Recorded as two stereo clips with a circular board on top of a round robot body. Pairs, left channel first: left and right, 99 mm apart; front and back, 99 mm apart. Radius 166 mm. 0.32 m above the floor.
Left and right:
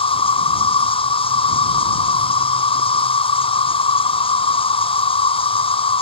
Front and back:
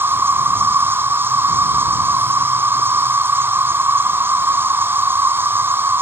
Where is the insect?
110° left.